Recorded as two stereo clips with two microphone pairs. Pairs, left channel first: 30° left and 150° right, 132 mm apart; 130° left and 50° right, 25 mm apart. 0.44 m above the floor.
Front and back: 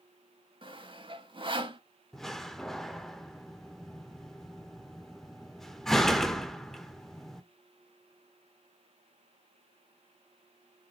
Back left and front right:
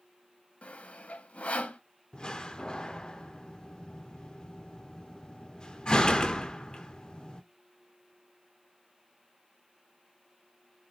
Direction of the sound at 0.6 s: 160° left.